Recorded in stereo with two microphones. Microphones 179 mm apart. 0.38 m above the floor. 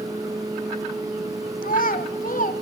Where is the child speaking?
55° left (ahead or behind), 1.1 m.